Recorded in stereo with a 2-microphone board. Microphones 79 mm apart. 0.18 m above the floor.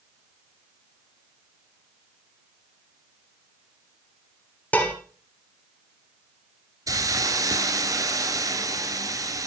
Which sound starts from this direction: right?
A hiss, at 6.9 s.